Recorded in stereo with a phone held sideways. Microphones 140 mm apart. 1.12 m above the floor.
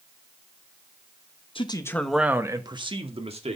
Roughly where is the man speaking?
Left.